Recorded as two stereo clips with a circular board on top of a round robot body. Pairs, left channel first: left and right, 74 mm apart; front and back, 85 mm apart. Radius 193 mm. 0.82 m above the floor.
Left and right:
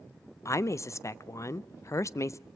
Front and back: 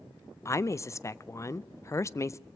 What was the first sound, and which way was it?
A woman speaking, 50° left.